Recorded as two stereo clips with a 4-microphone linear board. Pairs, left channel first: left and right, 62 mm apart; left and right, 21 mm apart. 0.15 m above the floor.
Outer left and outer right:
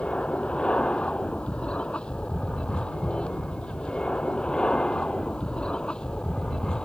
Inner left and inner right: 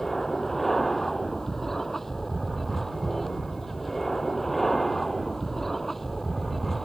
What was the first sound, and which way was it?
An aircraft, 15° left (ahead or behind).